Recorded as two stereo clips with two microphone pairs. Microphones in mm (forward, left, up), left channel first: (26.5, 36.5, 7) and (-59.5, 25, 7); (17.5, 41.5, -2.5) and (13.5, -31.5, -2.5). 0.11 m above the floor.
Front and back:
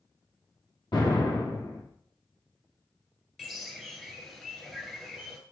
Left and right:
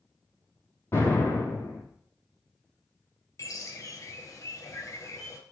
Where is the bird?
90° left, 1.4 m.